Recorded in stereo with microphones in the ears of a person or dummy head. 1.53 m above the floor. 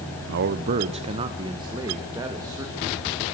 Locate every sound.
0.3 s a man speaking: 60° right (ahead or behind), 0.7 m; by 3.0 s 15° right (ahead or behind), 3 m